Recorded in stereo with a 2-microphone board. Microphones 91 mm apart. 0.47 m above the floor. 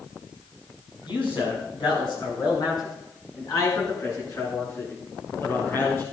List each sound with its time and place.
1.1 s a man speaking: 70° left (ahead or behind), 5.5 m; by 6.0 s 30° left (ahead or behind), 8 m